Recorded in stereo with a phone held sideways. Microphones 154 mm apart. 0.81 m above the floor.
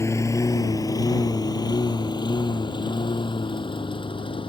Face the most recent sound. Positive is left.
turn(degrees=30)  # may be behind; listen again after turning